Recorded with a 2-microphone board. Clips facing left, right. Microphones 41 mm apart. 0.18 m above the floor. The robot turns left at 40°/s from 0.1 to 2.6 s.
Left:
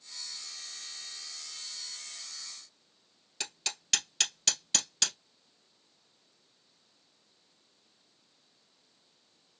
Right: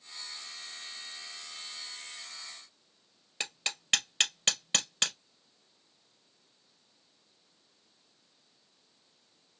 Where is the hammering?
25° right (ahead or behind), 2 m.